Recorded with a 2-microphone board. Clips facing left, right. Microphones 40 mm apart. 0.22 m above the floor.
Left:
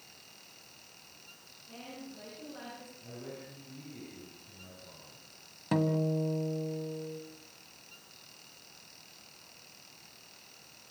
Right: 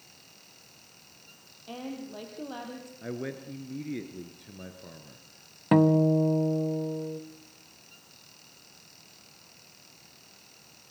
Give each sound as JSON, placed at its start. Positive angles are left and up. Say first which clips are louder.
{"t": 1.7, "sound": "a woman speaking", "louder": "right 8 dB", "side_deg": -70, "distance_m": 6.5}
{"t": 3.0, "sound": "a man speaking", "louder": "right 11 dB", "side_deg": -65, "distance_m": 3.0}
{"t": 5.7, "sound": "a guitar", "louder": "right 9 dB", "side_deg": -30, "distance_m": 1.1}